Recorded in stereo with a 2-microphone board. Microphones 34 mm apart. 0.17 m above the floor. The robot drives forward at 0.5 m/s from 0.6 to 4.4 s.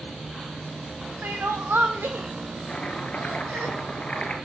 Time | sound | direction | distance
1.2 | crying | 70° right (ahead or behind) | 2 m
2.7 | chopping | 35° left (ahead or behind) | 2.5 m